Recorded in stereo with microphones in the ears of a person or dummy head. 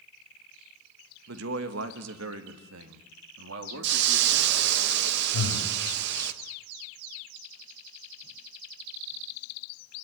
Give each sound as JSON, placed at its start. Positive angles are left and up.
{"t": 1.3, "sound": "a man speaking", "side_deg": -70, "distance_m": 1.8}
{"t": 3.8, "sound": "a hiss", "side_deg": -65, "distance_m": 1.3}
{"t": 5.3, "sound": "breathing", "side_deg": 85, "distance_m": 5.0}